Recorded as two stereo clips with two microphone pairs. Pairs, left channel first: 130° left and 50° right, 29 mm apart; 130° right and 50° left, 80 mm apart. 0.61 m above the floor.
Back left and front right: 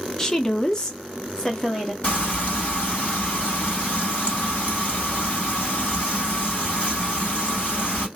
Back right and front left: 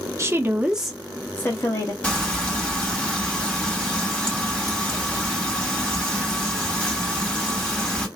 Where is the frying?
155° left, 1.9 m.